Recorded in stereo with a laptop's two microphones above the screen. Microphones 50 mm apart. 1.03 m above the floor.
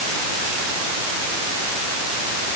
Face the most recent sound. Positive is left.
No sound to turn to.